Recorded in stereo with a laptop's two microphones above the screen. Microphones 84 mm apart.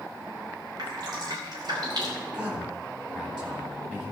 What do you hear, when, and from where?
0.8 s dripping: 60° right (ahead or behind), 2.5 m
2.2 s a man speaking: 15° right (ahead or behind), 3.5 m